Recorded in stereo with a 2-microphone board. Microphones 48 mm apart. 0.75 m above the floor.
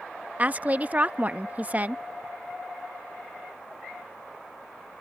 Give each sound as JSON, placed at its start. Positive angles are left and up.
{"t": 0.4, "sound": "a woman speaking", "side_deg": -35}